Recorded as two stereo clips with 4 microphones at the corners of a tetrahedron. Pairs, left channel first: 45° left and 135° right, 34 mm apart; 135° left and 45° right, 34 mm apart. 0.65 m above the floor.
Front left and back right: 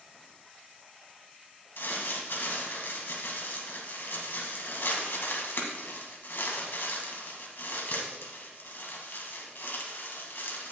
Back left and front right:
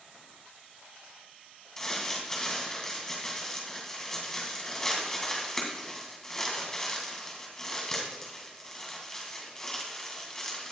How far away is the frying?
I don't hear frying.